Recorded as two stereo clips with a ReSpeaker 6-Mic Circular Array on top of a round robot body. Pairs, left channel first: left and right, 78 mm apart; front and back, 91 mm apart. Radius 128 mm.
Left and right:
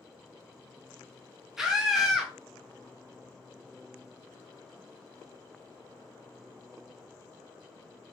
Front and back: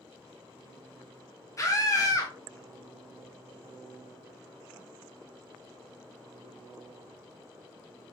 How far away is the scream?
About 1.0 m.